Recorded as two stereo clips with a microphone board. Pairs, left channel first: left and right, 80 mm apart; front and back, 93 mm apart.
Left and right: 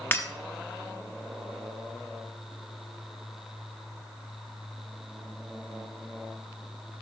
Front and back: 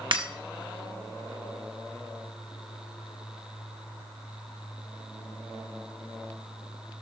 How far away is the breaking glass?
About 1.0 m.